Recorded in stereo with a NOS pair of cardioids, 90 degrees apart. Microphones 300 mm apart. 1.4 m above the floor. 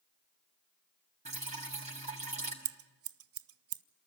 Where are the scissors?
50° right, 0.6 m.